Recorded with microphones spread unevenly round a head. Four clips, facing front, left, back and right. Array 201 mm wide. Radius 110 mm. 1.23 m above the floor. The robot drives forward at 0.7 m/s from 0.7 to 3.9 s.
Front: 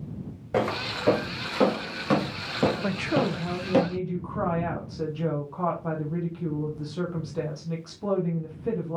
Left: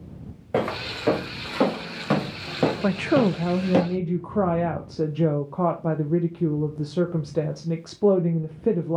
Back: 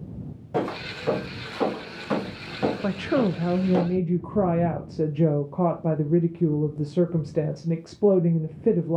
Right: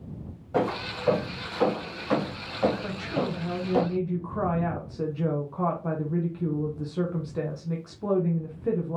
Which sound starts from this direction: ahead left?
Footsteps, at 0.5 s.